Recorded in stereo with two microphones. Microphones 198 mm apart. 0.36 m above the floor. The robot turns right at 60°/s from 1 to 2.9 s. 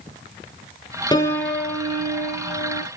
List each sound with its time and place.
1.1 s a piano: 160° left, 1.2 m; by 2.8 s 100° right, 1.2 m